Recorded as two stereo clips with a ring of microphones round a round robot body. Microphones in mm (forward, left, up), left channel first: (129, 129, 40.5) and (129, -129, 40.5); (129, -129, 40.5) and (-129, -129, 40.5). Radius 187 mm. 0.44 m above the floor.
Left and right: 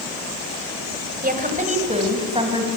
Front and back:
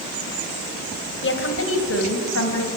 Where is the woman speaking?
35° right, 3 m; by 2.7 s 20° right, 4.5 m.